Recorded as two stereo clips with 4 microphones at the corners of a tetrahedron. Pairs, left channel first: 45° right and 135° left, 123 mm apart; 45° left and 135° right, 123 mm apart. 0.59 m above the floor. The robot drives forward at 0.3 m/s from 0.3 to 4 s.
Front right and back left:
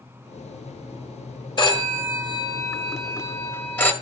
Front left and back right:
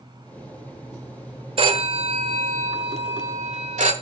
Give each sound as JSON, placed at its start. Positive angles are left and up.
{"t": 1.6, "sound": "a phone ringing", "azimuth_deg": -95, "distance_m": 1.4}